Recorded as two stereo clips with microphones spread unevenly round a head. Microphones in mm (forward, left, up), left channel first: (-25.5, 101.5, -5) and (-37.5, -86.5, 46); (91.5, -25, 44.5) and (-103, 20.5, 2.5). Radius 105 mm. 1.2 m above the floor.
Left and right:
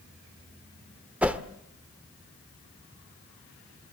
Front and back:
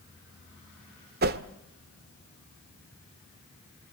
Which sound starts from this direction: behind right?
A whoosh, at 1.2 s.